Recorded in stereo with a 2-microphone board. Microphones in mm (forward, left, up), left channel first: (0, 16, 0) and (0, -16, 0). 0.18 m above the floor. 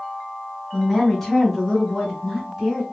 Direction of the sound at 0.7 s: 10° left (ahead or behind).